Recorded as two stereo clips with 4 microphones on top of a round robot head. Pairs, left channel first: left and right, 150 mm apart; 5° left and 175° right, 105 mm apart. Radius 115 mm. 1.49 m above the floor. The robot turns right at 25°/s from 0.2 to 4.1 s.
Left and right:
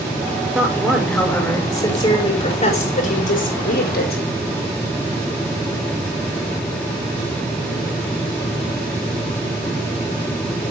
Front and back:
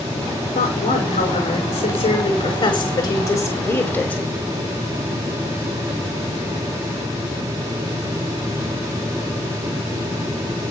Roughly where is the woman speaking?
Ahead.